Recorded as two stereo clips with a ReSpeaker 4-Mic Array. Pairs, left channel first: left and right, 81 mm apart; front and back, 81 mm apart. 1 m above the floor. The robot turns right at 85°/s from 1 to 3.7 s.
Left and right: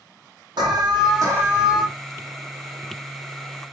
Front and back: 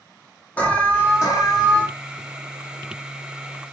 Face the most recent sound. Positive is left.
turn(degrees=160)